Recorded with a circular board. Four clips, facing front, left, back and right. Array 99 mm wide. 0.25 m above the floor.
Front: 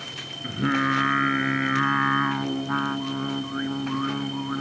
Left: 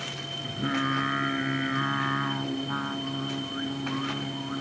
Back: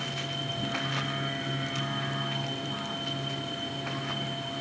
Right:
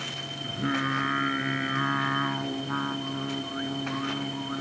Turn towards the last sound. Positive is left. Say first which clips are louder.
# even, front 13 dB
turn(degrees=0)